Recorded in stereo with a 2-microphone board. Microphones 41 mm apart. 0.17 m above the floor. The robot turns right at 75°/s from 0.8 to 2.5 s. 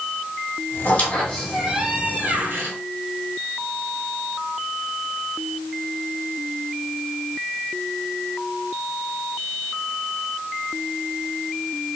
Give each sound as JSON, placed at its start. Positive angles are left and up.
{"t": 0.8, "sound": "a squeak", "azimuth_deg": 130, "distance_m": 1.8}